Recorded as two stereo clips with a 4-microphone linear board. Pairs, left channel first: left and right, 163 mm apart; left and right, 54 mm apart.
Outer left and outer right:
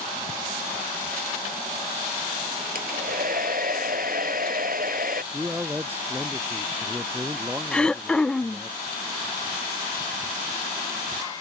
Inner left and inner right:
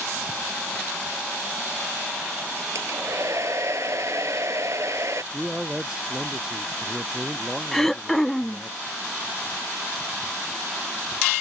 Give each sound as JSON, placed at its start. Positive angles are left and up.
{"t": 2.8, "sound": "a hair dryer", "side_deg": -65}
{"t": 5.3, "sound": "a man speaking", "side_deg": -15}
{"t": 7.7, "sound": "throat clearing", "side_deg": 5}